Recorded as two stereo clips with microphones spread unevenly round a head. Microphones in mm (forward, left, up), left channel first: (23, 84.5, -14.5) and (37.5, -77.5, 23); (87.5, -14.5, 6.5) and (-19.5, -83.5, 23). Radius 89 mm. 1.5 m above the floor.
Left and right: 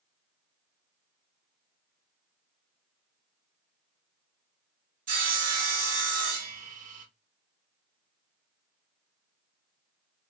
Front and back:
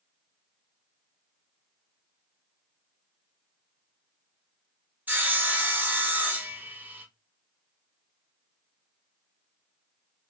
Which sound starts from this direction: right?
Sawing, at 5.1 s.